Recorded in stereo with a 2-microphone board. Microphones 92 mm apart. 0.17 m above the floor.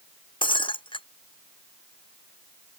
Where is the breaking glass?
65° left (ahead or behind).